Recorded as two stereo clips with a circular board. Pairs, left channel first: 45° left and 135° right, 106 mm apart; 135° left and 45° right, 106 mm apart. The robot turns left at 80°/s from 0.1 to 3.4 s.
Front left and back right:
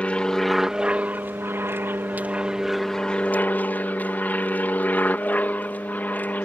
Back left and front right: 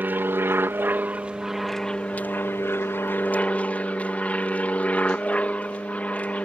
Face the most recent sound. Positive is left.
turn(degrees=85)